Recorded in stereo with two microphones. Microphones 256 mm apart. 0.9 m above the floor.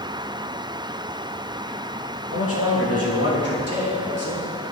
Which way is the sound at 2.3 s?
55° left (ahead or behind).